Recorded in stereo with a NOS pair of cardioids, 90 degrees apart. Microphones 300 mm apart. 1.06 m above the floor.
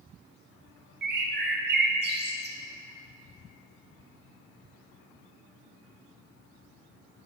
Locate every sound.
1.0 s a bird: 35° right, 0.7 m